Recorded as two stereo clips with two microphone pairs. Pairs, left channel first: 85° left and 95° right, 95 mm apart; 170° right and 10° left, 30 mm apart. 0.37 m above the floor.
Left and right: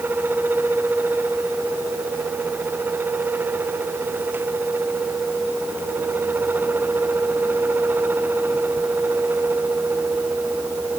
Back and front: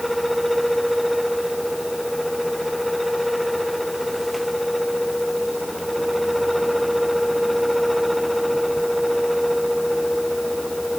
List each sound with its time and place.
Only background noise.